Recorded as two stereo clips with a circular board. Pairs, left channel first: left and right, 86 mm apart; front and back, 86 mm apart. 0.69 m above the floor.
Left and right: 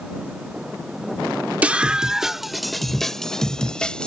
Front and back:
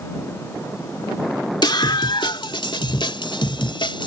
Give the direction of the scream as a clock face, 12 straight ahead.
1 o'clock.